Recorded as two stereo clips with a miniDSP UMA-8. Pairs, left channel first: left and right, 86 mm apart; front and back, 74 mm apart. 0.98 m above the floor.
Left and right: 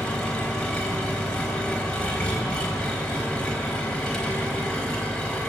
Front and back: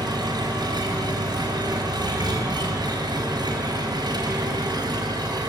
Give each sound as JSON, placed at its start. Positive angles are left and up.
{"t": 0.0, "sound": "an engine running", "azimuth_deg": 170, "distance_m": 4.0}